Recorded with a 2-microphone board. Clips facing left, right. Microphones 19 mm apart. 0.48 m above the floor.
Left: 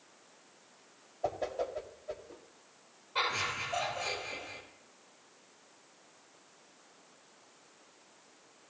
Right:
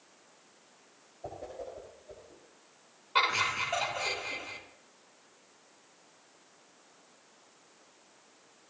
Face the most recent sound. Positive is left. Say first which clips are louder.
# right 5 dB
turn(degrees=-50)  # may be behind; listen again after turning